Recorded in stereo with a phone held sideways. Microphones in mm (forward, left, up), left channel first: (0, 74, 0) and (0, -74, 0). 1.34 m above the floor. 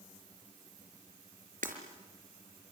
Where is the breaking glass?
65° right (ahead or behind), 4.5 m.